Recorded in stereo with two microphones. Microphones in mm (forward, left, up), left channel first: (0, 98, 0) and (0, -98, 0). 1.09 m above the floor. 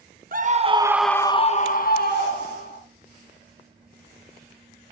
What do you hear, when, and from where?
0.3 s a scream: 50° right (ahead or behind), 1.3 m; by 2.8 s 70° left (ahead or behind), 2.5 m